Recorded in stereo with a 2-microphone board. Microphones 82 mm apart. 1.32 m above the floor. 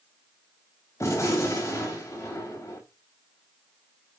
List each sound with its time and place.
1.0 s a gunshot: 35° left (ahead or behind), 3.5 m